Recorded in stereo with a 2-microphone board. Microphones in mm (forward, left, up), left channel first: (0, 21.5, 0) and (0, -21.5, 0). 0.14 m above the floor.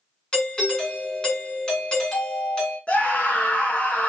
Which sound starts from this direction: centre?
A doorbell, at 0.3 s.